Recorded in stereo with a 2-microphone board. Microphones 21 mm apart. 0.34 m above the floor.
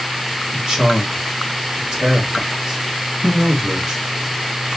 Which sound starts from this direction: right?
A man speaking, at 0.5 s.